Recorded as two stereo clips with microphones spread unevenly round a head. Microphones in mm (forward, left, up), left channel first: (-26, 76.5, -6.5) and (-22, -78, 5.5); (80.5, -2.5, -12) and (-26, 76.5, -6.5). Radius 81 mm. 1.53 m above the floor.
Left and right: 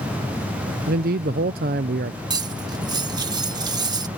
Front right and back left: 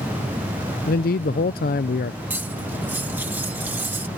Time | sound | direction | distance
0.9 | a man speaking | 60° right | ?
2.3 | cutlery clinking | 145° right | ?